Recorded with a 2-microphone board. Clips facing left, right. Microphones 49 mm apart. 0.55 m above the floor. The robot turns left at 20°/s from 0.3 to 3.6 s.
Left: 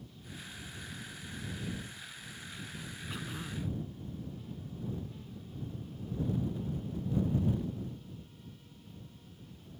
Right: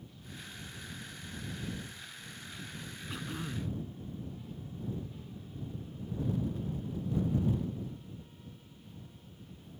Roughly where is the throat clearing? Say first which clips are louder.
Right 2 dB; centre.